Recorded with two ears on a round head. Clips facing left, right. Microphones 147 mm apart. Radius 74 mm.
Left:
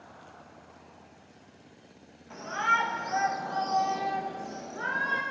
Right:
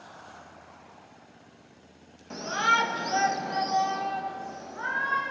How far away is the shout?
About 1.2 m.